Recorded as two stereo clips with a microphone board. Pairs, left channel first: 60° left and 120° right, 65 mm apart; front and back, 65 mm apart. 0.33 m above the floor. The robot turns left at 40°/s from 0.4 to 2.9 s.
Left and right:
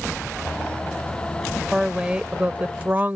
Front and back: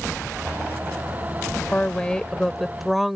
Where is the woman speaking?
50° right; by 3.2 s 95° right.